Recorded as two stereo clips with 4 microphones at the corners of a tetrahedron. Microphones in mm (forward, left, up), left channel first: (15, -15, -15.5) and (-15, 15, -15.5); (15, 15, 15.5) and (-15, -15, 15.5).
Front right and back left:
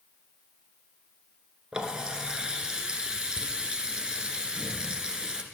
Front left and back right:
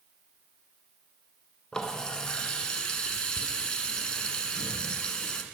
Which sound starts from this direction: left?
A running tap, at 1.7 s.